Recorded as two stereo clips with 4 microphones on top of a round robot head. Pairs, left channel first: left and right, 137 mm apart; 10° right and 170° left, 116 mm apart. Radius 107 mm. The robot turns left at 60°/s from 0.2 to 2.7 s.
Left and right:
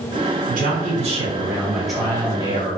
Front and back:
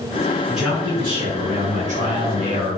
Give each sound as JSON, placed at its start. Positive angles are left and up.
{"t": 0.5, "sound": "a man speaking", "azimuth_deg": -95, "distance_m": 1.0}